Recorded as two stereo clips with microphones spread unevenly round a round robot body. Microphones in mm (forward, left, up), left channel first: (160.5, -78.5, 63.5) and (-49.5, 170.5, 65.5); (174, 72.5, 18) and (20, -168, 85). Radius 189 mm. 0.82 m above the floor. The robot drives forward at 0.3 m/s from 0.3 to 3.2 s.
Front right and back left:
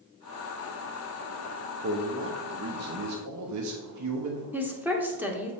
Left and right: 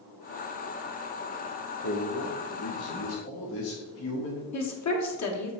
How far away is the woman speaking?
About 1.4 m.